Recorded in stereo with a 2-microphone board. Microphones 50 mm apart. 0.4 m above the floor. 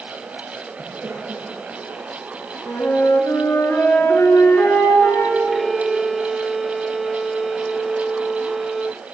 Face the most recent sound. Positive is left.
turn(degrees=0)  # may be behind; listen again after turning